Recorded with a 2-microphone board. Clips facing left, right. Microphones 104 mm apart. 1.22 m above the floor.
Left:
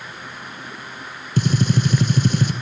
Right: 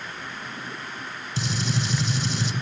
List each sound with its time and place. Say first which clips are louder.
1.4 s a gunshot: left 9 dB; 55° left (ahead or behind), 1.9 m